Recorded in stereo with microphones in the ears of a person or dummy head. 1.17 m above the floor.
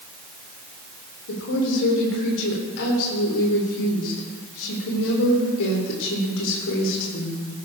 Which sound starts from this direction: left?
A woman speaking, at 1.3 s.